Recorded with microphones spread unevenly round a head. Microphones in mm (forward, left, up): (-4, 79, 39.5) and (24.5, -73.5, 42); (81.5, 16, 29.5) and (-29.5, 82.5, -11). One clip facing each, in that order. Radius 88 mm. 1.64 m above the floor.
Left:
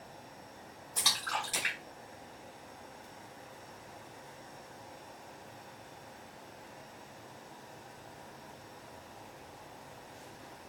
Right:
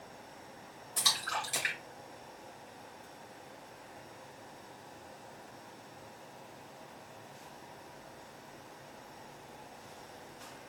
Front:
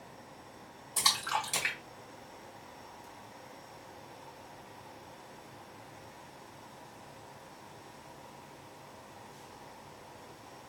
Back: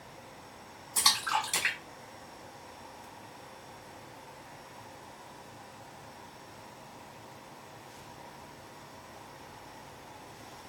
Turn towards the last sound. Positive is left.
turn(degrees=-10)